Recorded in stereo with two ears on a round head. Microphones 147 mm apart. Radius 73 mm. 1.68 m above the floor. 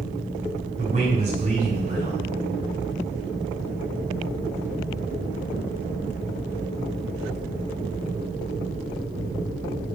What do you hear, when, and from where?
0.8 s a man speaking: 45° right (ahead or behind), 4.5 m